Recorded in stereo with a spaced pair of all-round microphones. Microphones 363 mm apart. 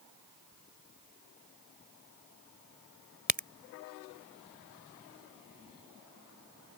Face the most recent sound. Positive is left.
turn(degrees=-25)  # may be behind; listen again after turning